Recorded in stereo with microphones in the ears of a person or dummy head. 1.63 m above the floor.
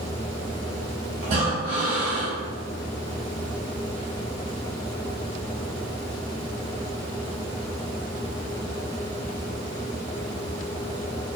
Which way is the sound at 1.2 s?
30° right (ahead or behind).